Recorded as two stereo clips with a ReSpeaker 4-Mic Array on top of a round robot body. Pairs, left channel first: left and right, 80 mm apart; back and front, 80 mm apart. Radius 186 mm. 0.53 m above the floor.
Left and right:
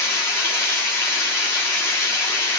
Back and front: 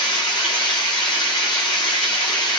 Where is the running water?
150° left, 0.8 m.